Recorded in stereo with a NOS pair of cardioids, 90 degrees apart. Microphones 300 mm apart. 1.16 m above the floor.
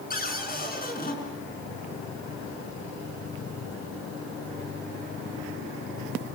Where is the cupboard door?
30° left, 6.5 m.